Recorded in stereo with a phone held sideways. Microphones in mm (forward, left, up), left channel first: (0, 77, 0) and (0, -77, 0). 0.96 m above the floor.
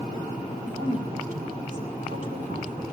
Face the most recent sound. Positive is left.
turn(degrees=-55)  # may be behind; listen again after turning